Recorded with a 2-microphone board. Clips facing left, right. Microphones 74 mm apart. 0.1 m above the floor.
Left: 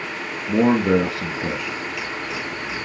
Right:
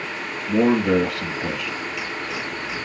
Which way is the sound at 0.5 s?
25° left (ahead or behind).